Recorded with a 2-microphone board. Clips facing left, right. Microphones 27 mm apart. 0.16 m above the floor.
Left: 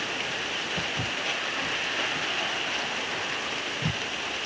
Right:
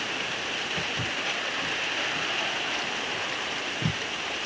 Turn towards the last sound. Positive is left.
turn(degrees=-80)